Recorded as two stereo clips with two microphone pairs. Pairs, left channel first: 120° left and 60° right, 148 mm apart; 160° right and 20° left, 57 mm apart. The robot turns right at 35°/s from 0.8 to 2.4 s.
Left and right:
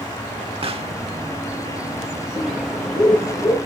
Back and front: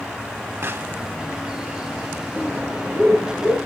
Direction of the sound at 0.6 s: 15° right.